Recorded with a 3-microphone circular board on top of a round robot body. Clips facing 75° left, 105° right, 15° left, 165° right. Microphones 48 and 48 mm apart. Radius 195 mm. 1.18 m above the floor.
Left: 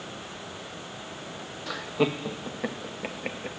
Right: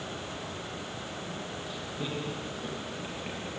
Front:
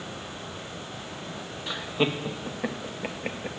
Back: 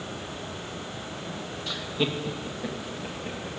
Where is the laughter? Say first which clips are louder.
Left 13 dB, front 2 dB; 85° left, 1.7 m; by 3.5 s 30° left, 1.9 m.